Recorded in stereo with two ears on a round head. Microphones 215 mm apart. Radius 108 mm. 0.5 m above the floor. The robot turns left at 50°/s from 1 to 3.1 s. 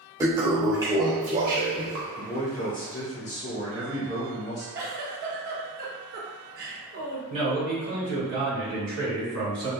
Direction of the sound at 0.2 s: 15° right.